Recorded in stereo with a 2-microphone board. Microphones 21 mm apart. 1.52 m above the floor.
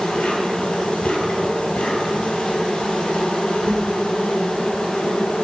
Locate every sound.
0.0 s an insect: 70° left (ahead or behind), 3 m